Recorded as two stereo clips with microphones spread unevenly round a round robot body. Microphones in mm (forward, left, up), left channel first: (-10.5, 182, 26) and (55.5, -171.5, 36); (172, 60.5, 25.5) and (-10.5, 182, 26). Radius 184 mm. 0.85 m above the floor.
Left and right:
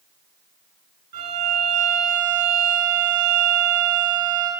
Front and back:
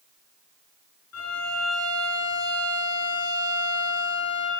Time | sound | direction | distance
1.1 | a violin | 50° right | 7 m